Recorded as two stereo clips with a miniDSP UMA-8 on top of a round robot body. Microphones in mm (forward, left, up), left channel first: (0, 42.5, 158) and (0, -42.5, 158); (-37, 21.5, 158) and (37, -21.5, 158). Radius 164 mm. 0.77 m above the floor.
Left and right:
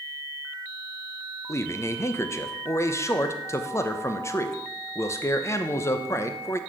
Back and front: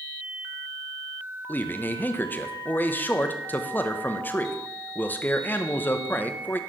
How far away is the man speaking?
About 1.1 m.